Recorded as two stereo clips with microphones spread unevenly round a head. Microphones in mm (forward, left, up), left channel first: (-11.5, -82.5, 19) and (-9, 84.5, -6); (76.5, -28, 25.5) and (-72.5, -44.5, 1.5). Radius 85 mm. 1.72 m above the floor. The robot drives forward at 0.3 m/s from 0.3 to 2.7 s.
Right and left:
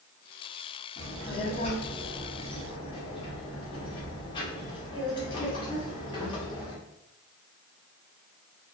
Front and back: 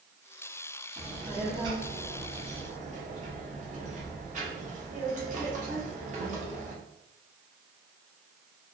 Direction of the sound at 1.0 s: 90° right.